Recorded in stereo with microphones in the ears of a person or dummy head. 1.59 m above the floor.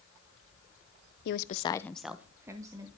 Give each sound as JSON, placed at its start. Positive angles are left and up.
{"t": 1.2, "sound": "a woman speaking", "side_deg": 65, "distance_m": 0.8}